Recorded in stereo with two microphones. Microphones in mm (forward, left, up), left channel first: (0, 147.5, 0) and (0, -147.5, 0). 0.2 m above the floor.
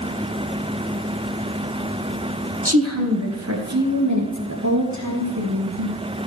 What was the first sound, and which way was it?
A woman speaking, 50° right (ahead or behind).